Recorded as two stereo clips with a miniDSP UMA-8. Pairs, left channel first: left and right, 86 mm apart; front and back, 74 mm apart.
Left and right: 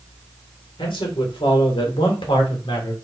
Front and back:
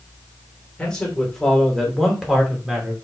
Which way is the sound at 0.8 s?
80° left.